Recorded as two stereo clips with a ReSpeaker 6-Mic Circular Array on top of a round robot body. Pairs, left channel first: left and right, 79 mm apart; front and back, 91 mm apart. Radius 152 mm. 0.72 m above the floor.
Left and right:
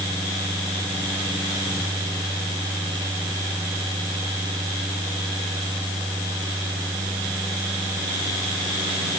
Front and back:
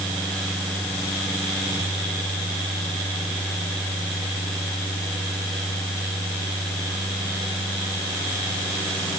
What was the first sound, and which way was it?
Only background noise.